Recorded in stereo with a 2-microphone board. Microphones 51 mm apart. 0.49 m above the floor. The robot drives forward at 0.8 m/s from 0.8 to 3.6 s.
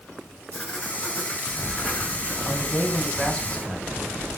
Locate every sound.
0.5 s writing: 25° left (ahead or behind), 5 m; by 2.4 s 30° left (ahead or behind), 4 m
2.5 s a man speaking: 10° left (ahead or behind), 4.5 m; by 3.9 s 15° left (ahead or behind), 3.5 m